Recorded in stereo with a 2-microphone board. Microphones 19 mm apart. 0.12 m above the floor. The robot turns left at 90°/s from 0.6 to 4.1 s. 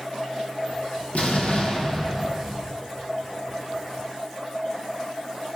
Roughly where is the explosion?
Left.